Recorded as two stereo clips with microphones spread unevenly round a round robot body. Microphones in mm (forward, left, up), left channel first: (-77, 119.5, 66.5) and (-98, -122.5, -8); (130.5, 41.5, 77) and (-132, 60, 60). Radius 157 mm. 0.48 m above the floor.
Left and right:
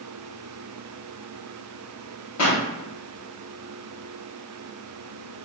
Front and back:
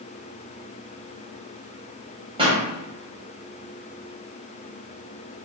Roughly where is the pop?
Left.